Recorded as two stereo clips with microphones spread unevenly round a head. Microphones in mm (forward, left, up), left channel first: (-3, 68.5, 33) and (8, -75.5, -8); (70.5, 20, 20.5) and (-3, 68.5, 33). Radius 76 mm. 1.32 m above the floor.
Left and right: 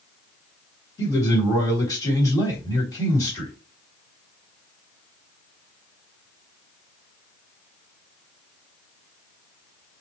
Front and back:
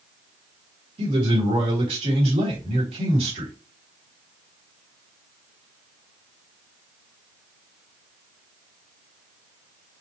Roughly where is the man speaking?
Behind.